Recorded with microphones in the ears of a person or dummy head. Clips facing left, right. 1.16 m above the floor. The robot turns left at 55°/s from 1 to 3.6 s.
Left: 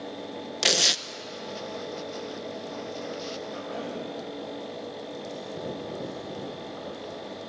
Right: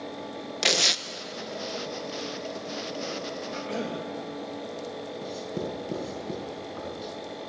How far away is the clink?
No clink in this recording.